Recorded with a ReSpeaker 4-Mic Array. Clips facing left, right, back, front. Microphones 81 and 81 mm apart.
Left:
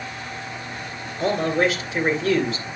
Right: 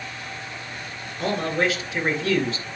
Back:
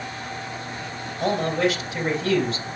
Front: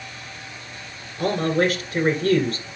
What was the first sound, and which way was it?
A man speaking, straight ahead.